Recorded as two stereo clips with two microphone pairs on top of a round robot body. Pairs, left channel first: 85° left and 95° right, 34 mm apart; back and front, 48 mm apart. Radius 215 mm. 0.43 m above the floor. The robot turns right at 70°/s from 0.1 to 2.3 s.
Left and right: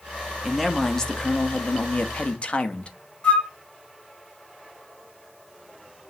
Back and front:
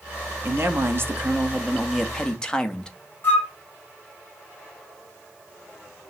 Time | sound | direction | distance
0.5 | a man speaking | 15° right | 1.3 m
3.2 | a flute | 130° left | 3 m